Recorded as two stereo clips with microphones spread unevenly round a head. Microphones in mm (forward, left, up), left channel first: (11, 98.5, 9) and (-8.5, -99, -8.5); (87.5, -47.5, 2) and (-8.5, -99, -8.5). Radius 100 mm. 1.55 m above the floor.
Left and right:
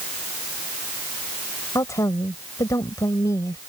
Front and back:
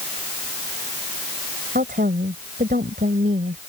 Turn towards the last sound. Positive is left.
turn(degrees=160)